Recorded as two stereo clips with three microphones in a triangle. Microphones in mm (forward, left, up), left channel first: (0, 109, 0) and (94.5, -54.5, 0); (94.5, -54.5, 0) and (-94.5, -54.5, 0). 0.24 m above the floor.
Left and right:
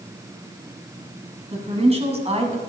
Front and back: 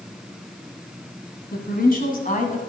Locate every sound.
1.5 s a woman speaking: 10° right, 2 m; by 2.7 s 25° right, 1.6 m